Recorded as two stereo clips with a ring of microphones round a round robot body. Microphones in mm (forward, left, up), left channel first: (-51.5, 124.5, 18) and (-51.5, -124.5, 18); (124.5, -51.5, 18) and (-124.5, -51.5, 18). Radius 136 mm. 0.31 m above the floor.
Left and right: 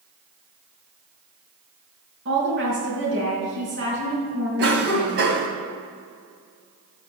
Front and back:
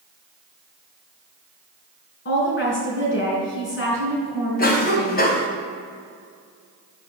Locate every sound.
2.2 s a woman speaking: 40° right, 4 m
4.6 s a cough: 45° right, 2.0 m